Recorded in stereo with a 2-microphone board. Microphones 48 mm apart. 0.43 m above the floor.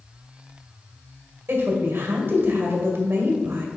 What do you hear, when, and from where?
1.5 s a woman speaking: 50° right (ahead or behind), 1.9 m